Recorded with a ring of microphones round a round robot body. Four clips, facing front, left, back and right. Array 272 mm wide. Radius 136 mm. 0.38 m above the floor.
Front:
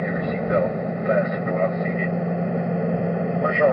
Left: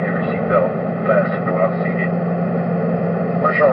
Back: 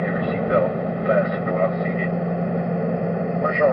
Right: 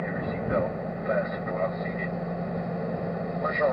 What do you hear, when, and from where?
0.0 s an aircraft: 100° left; by 3.7 s 90° left